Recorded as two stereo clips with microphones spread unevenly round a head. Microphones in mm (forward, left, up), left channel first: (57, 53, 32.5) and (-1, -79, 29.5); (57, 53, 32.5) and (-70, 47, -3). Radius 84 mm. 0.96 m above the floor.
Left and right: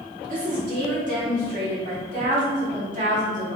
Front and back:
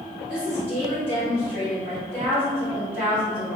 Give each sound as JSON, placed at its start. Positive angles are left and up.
{"t": 0.3, "sound": "a woman speaking", "azimuth_deg": -105, "distance_m": 1.7}